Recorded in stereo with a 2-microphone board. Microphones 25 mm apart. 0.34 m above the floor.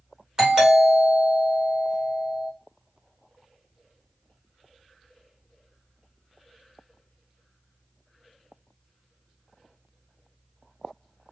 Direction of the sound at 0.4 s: 25° right (ahead or behind).